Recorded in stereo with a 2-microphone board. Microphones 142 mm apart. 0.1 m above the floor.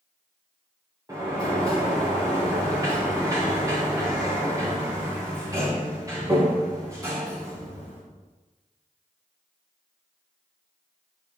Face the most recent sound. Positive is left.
turn(degrees=-25)  # may be behind; listen again after turning